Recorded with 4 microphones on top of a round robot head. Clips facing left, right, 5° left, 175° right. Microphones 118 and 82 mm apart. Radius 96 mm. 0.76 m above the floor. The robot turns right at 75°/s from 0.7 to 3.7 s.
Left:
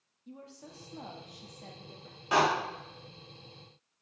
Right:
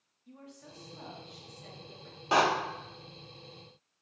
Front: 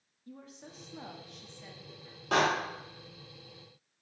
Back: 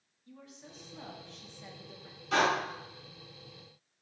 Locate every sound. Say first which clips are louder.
0.3 s a woman speaking: left 2 dB, front 3 dB; 40° left, 1.2 m; by 2.2 s 155° left, 1.2 m
2.3 s a door slam: right 1 dB, front 1 dB; 30° right, 2.5 m; by 2.4 s 25° right, 2.5 m